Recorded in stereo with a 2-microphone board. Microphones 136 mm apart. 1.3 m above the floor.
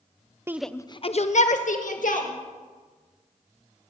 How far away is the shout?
About 0.6 m.